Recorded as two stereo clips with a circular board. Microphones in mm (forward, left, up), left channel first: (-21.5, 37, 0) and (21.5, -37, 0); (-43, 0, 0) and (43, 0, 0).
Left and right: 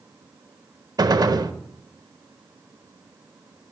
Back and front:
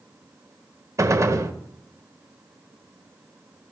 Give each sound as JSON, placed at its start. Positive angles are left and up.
{"t": 1.0, "sound": "a gunshot", "azimuth_deg": -40, "distance_m": 0.6}